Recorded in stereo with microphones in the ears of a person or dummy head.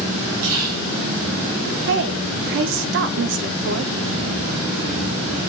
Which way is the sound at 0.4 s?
85° right.